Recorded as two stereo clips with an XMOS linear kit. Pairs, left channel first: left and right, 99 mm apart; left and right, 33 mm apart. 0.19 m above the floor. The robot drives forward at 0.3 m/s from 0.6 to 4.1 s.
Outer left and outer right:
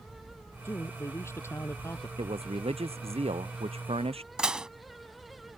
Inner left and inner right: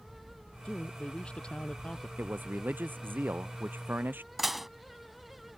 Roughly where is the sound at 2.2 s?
Right.